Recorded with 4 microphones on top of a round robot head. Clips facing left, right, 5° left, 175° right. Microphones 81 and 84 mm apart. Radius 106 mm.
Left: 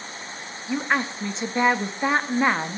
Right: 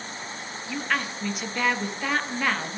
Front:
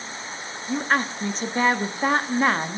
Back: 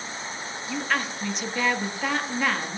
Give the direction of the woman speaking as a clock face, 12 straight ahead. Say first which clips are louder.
Left 4 dB, front 5 dB; 11 o'clock.